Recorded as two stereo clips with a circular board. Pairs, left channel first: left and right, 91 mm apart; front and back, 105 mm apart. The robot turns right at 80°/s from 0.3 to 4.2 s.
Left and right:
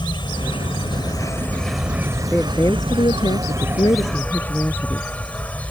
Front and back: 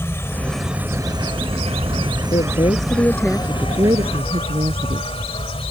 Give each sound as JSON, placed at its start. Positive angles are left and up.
{"t": 0.0, "sound": "an insect", "azimuth_deg": 65}
{"t": 2.3, "sound": "a woman speaking", "azimuth_deg": 5}